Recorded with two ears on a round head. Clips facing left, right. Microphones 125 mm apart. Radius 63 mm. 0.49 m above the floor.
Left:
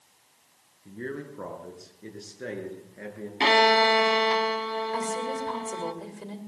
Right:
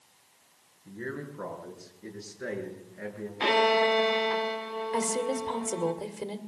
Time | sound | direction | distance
0.8 | a man speaking | 35° left (ahead or behind) | 6.5 m
3.4 | a violin | 75° left (ahead or behind) | 1.7 m
4.9 | a woman speaking | 25° right (ahead or behind) | 2 m